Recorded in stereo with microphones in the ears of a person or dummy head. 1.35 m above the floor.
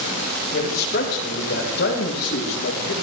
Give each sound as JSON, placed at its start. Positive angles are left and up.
{"t": 0.5, "sound": "a man speaking", "side_deg": 50, "distance_m": 6.0}